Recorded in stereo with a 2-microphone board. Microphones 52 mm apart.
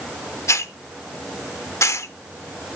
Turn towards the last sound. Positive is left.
turn(degrees=70)  # may be behind; listen again after turning